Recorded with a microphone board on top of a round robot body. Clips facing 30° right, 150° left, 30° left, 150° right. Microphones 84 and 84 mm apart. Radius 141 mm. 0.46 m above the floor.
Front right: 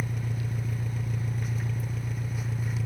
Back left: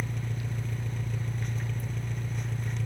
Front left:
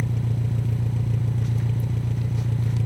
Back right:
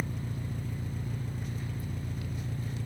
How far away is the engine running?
About 0.7 m.